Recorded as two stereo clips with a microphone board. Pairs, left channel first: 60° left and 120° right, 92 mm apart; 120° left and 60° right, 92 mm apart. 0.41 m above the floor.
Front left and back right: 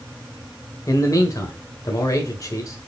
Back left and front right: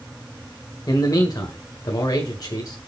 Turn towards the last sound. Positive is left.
turn(degrees=95)